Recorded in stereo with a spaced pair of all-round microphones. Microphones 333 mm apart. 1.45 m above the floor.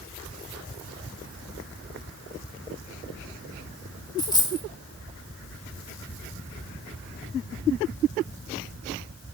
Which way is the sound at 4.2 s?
10° left (ahead or behind).